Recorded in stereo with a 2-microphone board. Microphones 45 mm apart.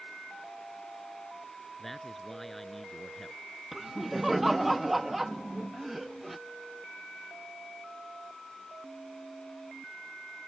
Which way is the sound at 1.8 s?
Centre (ahead or behind).